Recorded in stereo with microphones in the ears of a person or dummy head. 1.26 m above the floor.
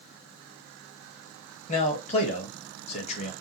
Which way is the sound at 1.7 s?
35° left (ahead or behind).